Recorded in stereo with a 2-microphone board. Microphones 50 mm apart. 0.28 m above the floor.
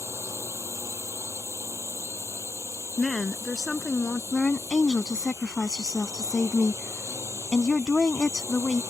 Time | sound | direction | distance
0.0 | a drone | 80° right | ?
3.0 | a woman speaking | 10° left (ahead or behind) | ?
4.3 | a woman speaking | 15° left (ahead or behind) | ?